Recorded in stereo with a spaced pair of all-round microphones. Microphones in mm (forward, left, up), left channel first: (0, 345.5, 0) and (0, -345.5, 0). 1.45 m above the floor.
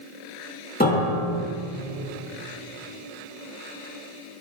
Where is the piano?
10° left (ahead or behind), 1.8 m.